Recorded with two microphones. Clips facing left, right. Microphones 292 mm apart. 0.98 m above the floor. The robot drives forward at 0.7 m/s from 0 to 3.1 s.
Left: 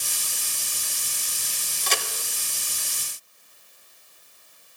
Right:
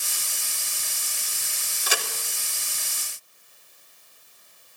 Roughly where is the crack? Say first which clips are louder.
Even; centre.